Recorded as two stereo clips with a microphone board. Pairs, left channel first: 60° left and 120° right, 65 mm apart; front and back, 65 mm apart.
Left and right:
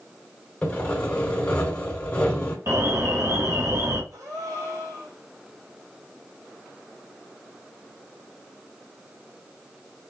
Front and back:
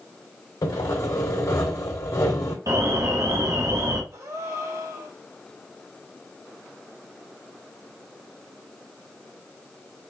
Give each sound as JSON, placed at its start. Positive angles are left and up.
{"t": 0.6, "sound": "sawing", "azimuth_deg": -5, "distance_m": 3.0}
{"t": 2.7, "sound": "an alarm", "azimuth_deg": -155, "distance_m": 1.6}
{"t": 4.1, "sound": "a gasp", "azimuth_deg": -145, "distance_m": 4.0}